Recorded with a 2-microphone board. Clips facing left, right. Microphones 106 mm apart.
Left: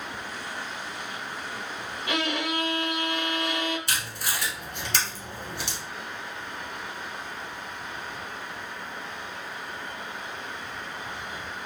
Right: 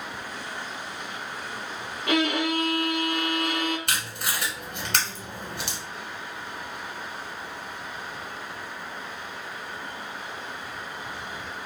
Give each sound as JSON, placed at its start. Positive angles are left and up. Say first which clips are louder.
{"t": 2.1, "sound": "a violin", "louder": "right 5 dB", "side_deg": -60, "distance_m": 0.8}
{"t": 3.9, "sound": "tape being pulled", "louder": "right 1 dB", "side_deg": -65, "distance_m": 1.0}